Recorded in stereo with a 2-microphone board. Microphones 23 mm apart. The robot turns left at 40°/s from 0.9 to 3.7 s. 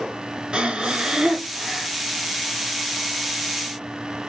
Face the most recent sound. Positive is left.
turn(degrees=115)